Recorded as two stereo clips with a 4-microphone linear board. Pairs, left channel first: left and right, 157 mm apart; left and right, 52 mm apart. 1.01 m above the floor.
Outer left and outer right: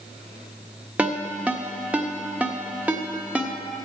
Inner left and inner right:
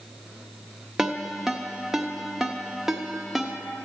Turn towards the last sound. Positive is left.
turn(degrees=-10)  # may be behind; listen again after turning